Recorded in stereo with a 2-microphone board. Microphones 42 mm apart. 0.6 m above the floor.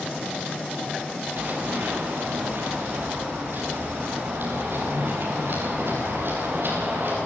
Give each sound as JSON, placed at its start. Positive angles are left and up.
{"t": 1.4, "sound": "running footsteps", "side_deg": -50, "distance_m": 7.0}